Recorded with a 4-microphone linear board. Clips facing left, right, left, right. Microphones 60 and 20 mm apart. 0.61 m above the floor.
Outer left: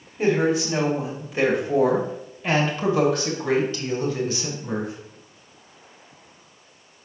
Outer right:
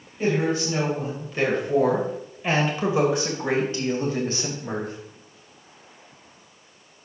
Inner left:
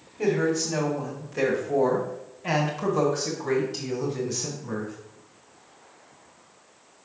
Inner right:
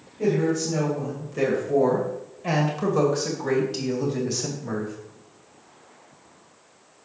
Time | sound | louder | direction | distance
0.2 | a woman speaking | outer left 3 dB, inner right 1 dB | 25° left (ahead or behind) | 2.5 m